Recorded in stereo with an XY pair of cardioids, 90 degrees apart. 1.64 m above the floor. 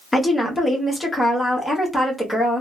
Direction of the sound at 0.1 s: 15° left.